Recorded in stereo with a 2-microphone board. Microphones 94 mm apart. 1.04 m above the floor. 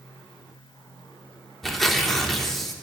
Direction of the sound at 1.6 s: 5° left (ahead or behind).